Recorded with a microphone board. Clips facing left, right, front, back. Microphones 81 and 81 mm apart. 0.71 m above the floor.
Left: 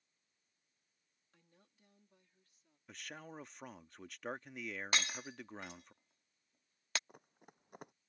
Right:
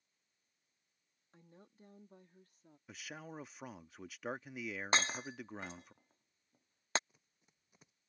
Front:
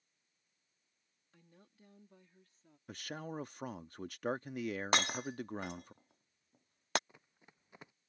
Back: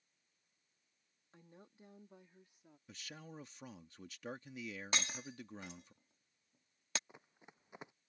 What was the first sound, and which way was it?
A woman speaking, 130° right.